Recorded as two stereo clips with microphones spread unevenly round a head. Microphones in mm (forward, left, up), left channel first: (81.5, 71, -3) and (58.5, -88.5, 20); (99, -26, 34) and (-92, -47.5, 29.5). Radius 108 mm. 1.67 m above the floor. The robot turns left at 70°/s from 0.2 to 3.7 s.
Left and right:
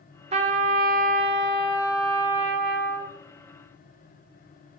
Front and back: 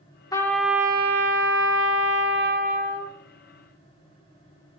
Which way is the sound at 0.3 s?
60° right.